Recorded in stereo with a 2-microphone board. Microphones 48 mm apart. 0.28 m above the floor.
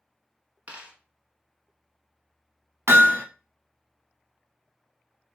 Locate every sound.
0.7 s a dropped coin: 35° right (ahead or behind), 0.9 m
2.9 s hammering: 70° right (ahead or behind), 0.6 m